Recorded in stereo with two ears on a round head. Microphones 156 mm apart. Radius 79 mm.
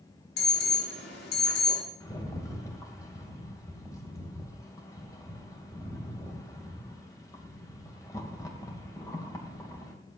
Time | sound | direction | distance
0.4 | an alarm | 65° left (ahead or behind) | 4.5 m
2.0 | a rattle | 20° left (ahead or behind) | 2.5 m